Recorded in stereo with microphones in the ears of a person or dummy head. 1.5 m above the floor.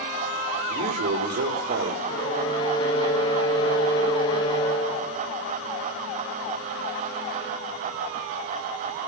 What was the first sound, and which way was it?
A man speaking, 55° right (ahead or behind).